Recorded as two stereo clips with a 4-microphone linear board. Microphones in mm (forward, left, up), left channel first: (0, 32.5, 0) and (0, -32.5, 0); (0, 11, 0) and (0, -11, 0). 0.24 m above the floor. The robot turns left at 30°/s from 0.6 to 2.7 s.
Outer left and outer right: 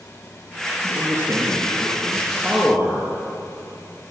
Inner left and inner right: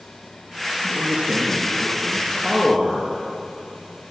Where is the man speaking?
125° right, 4 m; by 3.1 s straight behind, 4 m.